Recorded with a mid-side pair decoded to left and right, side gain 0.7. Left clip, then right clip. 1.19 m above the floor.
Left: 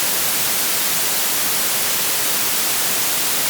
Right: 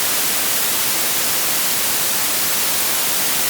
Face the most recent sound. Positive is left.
No sound to turn to.